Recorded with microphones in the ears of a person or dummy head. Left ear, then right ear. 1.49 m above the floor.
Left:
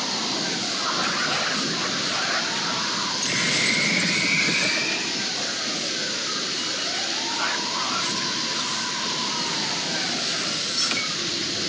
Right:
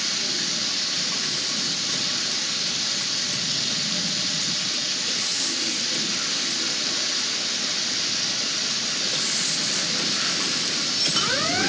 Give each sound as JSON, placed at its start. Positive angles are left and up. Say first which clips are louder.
{"t": 0.0, "sound": "running water", "louder": "right 1 dB", "side_deg": -35, "distance_m": 2.5}